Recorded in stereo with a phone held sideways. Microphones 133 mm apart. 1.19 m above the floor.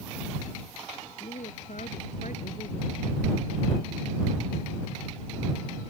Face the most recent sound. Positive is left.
turn(degrees=70)  # may be behind; listen again after turning